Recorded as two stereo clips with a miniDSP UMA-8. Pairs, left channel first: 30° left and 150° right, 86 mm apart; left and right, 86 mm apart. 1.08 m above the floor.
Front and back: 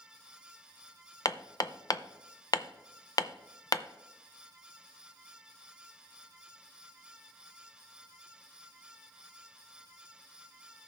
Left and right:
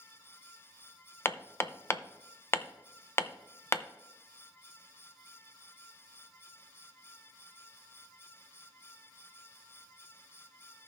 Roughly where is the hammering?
Ahead left.